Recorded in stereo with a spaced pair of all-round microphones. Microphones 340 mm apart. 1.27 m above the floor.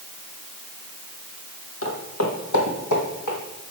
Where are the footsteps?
40° left (ahead or behind), 1.9 m; by 3.4 s 65° left (ahead or behind), 3 m.